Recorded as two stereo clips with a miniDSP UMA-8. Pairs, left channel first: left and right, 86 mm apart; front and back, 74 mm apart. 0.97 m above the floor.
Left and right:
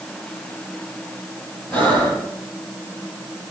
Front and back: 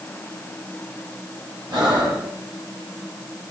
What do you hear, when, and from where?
1.7 s breathing: 160° left, 7 m